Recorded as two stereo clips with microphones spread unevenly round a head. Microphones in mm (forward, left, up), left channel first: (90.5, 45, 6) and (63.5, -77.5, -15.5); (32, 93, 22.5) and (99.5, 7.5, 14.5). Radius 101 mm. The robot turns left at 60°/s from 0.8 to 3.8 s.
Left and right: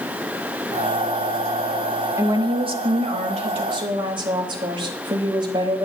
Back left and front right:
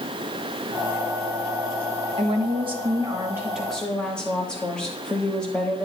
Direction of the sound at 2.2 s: 50° right.